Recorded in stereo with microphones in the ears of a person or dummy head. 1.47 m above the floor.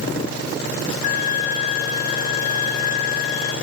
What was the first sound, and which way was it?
A violin, 35° left (ahead or behind).